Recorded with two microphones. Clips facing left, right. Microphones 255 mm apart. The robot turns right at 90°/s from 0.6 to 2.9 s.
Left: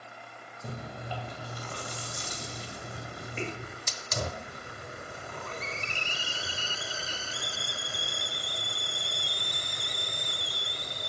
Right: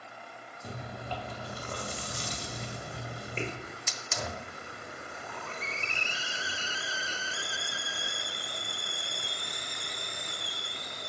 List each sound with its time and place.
0.6 s chewing: 125° left, 1.9 m; by 3.5 s 30° right, 1.9 m
3.6 s a hiss: 40° left (ahead or behind), 0.8 m